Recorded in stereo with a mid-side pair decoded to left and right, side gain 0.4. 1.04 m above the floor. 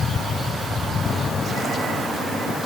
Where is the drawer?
No drawer in this recording.